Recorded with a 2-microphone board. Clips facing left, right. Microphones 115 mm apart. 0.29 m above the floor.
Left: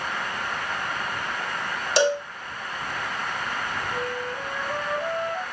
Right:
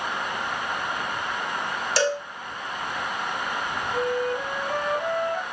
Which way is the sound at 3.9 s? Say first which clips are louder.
Right 5 dB; 55° right (ahead or behind).